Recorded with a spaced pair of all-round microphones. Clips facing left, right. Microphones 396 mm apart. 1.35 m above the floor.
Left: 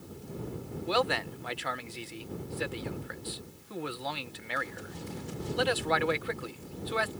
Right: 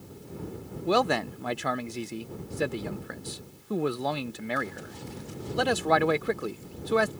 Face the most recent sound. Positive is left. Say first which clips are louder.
# right 5 dB
turn(degrees=-60)  # may be behind; listen again after turning